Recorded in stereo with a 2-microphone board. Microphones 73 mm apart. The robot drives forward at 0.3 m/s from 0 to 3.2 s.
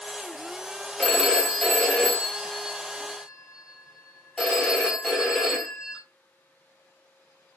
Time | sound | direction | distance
1.0 | a phone ringing | centre (ahead or behind) | 0.8 m